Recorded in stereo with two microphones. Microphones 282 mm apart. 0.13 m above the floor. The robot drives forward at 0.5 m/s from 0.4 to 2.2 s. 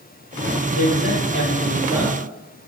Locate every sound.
0.8 s a man speaking: 55° left (ahead or behind), 3.5 m; by 2.2 s 60° left (ahead or behind), 3.5 m